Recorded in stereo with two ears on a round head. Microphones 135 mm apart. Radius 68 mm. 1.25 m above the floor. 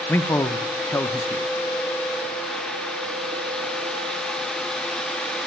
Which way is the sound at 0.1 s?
15° left (ahead or behind).